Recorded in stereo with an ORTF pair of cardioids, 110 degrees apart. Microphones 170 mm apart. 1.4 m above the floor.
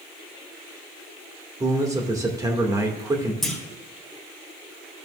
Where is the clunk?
Straight ahead, 2 m.